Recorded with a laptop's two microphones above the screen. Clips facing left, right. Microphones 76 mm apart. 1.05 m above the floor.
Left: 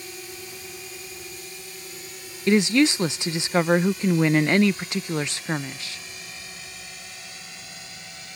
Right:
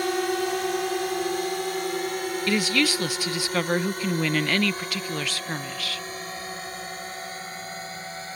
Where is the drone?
70° right (ahead or behind); by 8.4 s 40° right (ahead or behind).